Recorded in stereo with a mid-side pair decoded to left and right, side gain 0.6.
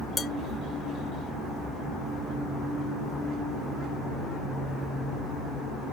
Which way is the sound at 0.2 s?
25° left.